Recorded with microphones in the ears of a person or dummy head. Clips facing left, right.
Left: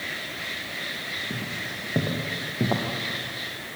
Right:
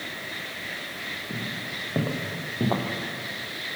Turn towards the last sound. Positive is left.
turn(degrees=5)  # may be behind; listen again after turning